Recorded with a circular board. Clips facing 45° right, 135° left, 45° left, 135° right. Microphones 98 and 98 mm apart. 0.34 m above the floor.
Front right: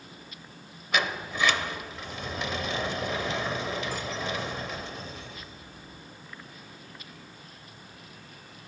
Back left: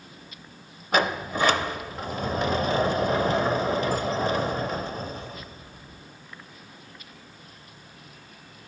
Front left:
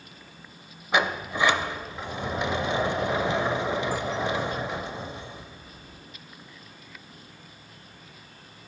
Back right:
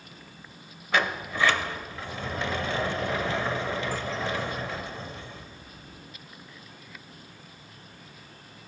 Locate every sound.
0.9 s a sliding door: 110° left, 0.5 m